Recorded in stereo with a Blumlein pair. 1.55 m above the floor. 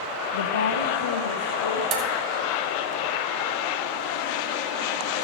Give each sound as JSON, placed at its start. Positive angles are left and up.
{"t": 0.3, "sound": "a woman speaking", "azimuth_deg": 60, "distance_m": 0.7}
{"t": 1.9, "sound": "dishes clattering", "azimuth_deg": -35, "distance_m": 2.0}